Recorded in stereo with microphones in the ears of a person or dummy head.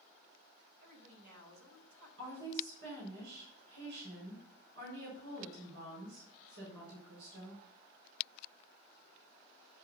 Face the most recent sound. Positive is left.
turn(degrees=-65)  # may be behind; listen again after turning